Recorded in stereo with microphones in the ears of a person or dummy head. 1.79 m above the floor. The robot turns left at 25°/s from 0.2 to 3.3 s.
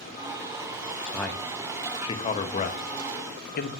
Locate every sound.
1.1 s a man speaking: centre (ahead or behind), 1.0 m; by 3.7 s 50° left (ahead or behind), 1.0 m